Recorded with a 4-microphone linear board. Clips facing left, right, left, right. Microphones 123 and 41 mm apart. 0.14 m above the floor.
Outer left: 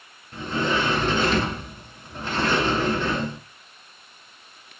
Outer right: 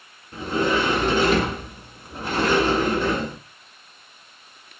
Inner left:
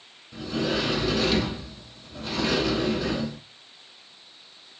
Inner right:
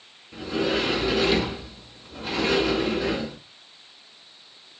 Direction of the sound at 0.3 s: 10° right (ahead or behind).